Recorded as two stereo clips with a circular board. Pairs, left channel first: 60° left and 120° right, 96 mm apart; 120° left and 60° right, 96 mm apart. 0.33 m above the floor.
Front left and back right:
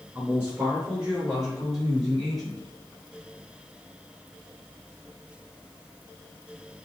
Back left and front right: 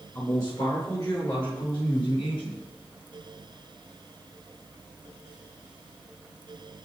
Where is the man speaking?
170° left, 4.5 m; by 2.6 s 150° left, 6.5 m.